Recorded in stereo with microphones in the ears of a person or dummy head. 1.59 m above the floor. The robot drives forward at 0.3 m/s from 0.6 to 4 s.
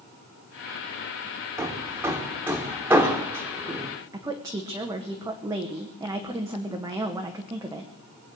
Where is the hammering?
15° right (ahead or behind), 1.3 m; by 3.9 s 10° right (ahead or behind), 2 m.